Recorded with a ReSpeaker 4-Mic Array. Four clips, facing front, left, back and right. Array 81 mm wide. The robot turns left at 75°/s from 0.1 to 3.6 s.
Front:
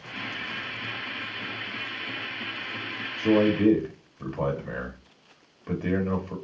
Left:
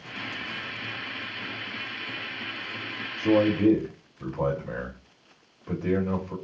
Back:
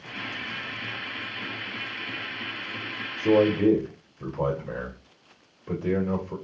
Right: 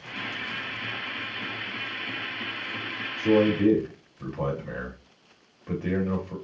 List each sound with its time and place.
3.2 s a man speaking: 20° left, 1.3 m; by 6.3 s 10° right, 1.3 m